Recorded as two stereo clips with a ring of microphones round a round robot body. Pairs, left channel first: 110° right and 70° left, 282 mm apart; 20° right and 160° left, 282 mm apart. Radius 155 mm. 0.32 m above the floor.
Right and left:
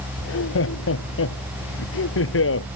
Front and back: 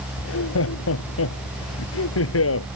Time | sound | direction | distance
0.2 | laughter | 65° right | ?